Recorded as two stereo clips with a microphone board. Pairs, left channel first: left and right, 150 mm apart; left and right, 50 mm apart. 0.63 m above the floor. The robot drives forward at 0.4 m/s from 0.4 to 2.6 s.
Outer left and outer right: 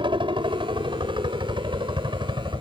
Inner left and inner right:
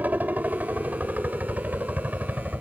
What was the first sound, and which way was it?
A helicopter, 35° right (ahead or behind).